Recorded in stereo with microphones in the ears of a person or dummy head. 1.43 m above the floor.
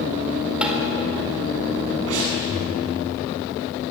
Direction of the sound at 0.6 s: 10° right (ahead or behind).